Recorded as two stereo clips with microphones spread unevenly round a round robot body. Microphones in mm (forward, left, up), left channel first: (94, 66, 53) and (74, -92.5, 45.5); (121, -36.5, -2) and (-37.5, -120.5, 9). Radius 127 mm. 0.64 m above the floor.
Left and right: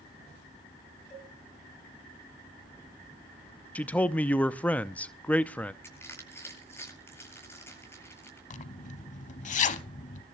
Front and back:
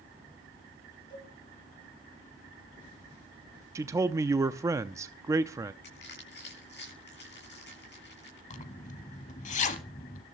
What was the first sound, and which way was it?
A cowbell, 40° left.